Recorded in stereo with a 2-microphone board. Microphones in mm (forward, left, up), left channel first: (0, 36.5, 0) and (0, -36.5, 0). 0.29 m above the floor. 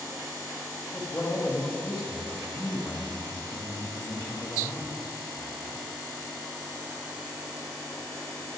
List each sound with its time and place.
0.9 s a man speaking: 20° left (ahead or behind), 1.6 m